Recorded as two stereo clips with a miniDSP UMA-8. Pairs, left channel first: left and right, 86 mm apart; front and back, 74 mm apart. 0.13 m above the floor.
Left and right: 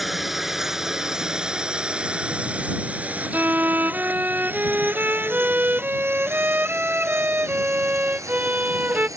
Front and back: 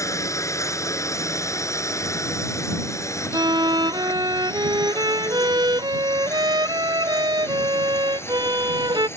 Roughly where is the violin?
Behind.